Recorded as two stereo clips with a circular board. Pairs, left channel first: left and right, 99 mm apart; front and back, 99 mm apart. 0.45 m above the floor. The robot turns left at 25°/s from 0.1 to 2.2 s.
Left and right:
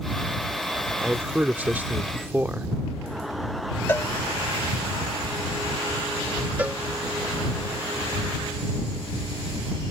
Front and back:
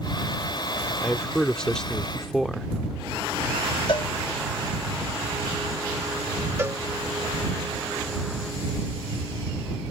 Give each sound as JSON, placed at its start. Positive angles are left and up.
{"t": 1.0, "sound": "a man speaking", "azimuth_deg": -50}
{"t": 3.9, "sound": "a cowbell", "azimuth_deg": 25}
{"t": 6.6, "sound": "a cowbell", "azimuth_deg": -145}